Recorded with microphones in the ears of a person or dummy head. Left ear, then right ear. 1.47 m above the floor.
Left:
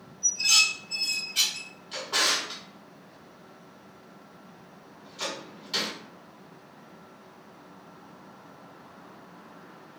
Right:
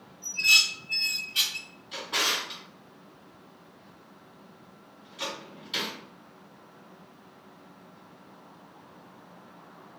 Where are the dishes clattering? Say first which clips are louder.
Right 1 dB; 20° right (ahead or behind), 1.2 m.